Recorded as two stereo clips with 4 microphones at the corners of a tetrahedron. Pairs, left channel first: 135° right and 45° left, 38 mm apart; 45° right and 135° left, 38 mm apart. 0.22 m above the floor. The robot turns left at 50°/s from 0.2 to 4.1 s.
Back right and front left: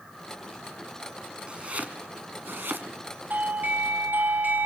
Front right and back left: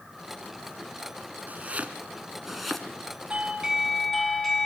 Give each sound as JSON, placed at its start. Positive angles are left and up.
{"t": 1.5, "sound": "chopping", "azimuth_deg": 105, "distance_m": 2.0}
{"t": 3.3, "sound": "a doorbell", "azimuth_deg": 75, "distance_m": 3.0}